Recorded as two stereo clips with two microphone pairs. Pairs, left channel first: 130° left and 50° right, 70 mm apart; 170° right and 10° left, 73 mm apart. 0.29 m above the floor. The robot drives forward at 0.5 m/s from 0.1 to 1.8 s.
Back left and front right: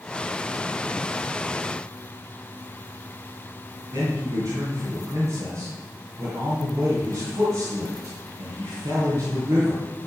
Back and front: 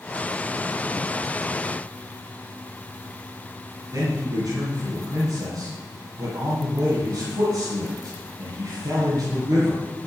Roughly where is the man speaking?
Ahead.